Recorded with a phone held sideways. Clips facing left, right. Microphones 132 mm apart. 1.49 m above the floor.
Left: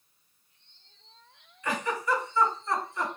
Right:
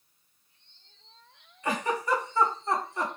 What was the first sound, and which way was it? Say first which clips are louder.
A giggle: right 1 dB; 40° right (ahead or behind).